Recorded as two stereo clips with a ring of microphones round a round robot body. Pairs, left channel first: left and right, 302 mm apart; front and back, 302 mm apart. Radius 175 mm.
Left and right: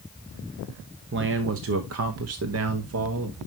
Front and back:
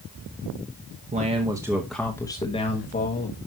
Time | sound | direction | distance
1.1 | a man speaking | 125° right | 1.1 m